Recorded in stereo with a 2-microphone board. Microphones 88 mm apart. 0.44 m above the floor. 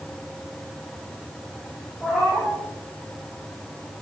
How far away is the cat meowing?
About 4.5 m.